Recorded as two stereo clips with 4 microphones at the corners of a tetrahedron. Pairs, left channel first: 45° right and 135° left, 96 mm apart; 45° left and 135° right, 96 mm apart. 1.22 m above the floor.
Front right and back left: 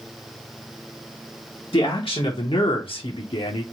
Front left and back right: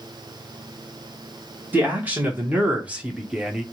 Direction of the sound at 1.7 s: 65° right.